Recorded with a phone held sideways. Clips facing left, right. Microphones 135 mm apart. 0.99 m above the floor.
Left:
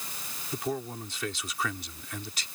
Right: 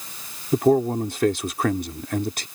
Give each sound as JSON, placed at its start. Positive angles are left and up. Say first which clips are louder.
{"t": 0.5, "sound": "a man speaking", "louder": "right 15 dB", "side_deg": -55}